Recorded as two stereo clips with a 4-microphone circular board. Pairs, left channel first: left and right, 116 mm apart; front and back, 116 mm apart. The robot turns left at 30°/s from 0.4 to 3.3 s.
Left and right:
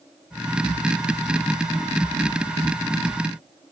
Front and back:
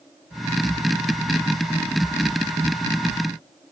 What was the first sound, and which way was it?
Only background noise.